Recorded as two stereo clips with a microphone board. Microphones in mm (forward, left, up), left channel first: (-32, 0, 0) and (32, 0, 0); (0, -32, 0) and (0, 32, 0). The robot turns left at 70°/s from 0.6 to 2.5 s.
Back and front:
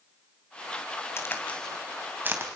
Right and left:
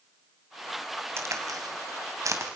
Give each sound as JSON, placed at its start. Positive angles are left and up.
{"t": 1.2, "sound": "a crack", "azimuth_deg": 135, "distance_m": 3.0}